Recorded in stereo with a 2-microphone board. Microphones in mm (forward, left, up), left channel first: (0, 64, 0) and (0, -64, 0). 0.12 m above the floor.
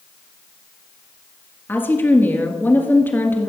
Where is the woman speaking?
15° left (ahead or behind), 1.8 m.